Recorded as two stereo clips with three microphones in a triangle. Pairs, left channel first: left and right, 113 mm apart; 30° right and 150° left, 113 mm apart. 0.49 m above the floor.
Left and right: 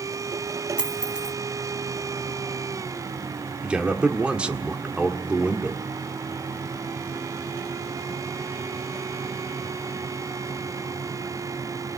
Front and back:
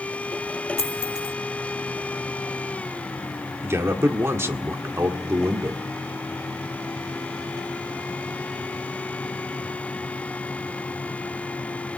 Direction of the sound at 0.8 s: 10° right.